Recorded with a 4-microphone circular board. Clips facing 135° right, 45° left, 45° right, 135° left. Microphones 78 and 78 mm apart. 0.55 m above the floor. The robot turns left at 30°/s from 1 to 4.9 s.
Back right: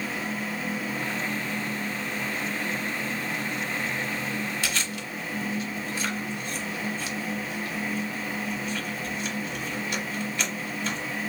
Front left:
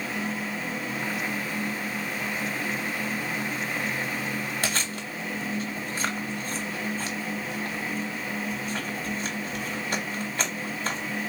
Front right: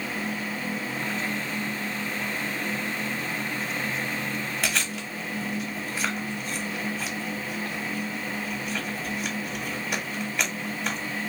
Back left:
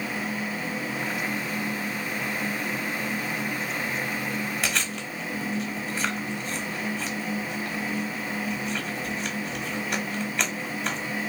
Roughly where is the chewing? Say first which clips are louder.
Front left 1 dB, even; ahead left.